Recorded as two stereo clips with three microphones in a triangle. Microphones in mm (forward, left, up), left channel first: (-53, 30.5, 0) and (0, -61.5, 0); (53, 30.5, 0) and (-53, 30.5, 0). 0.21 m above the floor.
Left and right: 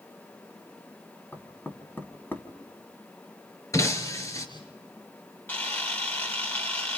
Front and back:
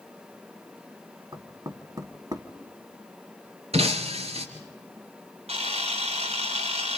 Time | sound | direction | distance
1.3 | knocking | straight behind | 1.5 m
3.7 | breaking glass | straight behind | 2 m
5.5 | a camera shutter | 170° right | 5.5 m